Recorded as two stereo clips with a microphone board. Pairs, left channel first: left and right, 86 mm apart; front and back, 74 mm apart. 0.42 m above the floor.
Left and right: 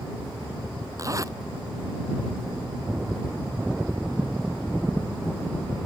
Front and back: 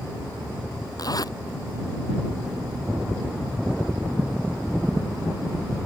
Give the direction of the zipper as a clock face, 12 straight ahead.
1 o'clock.